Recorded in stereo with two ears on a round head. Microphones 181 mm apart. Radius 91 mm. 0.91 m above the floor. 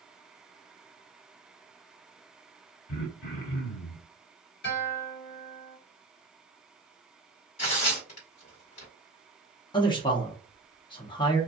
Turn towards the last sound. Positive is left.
turn(degrees=25)  # may be behind; listen again after turning